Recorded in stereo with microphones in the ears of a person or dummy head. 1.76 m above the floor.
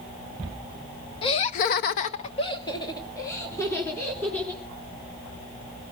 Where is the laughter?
30° left (ahead or behind), 1.2 m; by 4.6 s 15° left (ahead or behind), 4.5 m.